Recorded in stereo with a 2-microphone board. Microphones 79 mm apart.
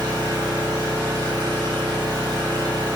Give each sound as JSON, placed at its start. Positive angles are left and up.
{"t": 0.0, "sound": "an engine running", "side_deg": -65, "distance_m": 1.3}